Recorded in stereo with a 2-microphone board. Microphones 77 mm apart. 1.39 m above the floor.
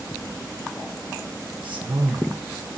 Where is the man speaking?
80° right, 1.4 m.